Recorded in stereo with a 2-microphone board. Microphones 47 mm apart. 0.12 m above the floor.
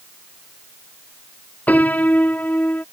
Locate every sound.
1.7 s a piano: 30° left (ahead or behind)